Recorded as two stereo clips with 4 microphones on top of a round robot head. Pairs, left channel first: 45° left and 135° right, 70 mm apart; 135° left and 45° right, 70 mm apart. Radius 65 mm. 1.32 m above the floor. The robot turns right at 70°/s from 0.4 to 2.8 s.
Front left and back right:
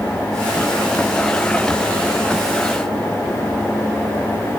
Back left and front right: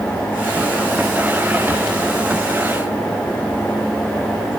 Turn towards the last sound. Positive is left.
No sound to turn to.